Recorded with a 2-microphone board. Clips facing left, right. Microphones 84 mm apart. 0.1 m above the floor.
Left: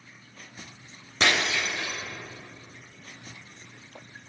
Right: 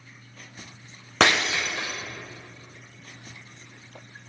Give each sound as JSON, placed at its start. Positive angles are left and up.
{"t": 1.2, "sound": "breaking glass", "side_deg": -80, "distance_m": 3.5}